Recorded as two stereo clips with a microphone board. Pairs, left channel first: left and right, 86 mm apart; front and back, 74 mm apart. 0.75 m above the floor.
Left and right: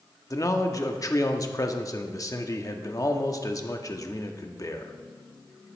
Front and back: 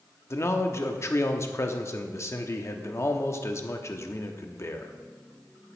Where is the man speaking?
45° left, 0.9 m.